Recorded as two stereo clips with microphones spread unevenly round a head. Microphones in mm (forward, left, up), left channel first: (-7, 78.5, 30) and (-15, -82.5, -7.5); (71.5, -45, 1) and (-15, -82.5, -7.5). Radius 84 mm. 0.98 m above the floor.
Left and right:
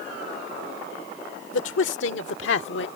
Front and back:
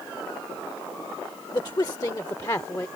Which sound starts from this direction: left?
A man speaking, at 1.5 s.